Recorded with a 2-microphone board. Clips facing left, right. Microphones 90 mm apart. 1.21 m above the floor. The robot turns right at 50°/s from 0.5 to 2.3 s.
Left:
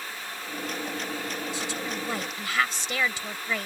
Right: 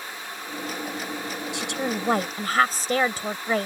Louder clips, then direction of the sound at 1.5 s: Right 4 dB; 80° right.